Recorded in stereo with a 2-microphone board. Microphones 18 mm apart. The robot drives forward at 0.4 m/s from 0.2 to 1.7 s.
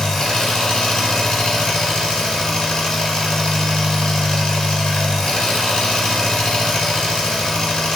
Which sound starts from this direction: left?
An engine running, at 0.0 s.